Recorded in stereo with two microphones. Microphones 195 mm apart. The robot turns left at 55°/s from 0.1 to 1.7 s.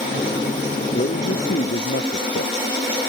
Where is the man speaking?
125° left; by 2.5 s 80° left.